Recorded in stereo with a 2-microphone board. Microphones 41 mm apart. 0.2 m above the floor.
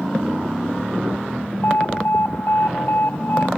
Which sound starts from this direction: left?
An alarm, at 1.6 s.